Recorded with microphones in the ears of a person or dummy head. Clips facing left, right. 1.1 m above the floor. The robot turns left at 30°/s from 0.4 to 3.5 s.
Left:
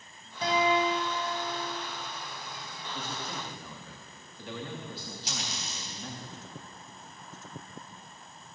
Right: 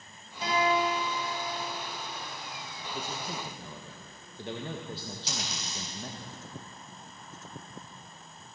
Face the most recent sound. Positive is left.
turn(degrees=-85)